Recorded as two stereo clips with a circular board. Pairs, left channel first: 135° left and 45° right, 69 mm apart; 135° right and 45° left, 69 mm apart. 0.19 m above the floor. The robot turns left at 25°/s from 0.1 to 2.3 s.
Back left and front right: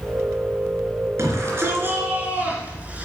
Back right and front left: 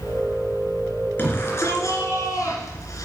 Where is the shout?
80° right, 2.5 m; by 3.0 s 110° right, 2.5 m.